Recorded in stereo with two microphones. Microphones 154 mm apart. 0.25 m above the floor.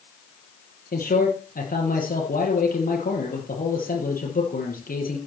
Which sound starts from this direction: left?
A man speaking, at 0.9 s.